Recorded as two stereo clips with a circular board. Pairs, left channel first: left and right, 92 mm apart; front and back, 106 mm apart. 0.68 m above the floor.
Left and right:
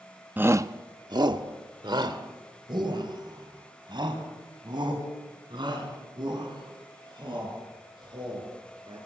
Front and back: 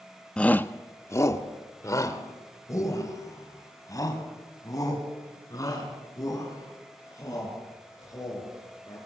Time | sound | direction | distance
0.4 | a shout | 65° right | 0.6 m